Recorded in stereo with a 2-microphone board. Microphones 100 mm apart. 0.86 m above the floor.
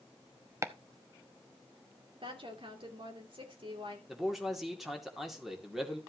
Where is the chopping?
30° right (ahead or behind), 0.8 m.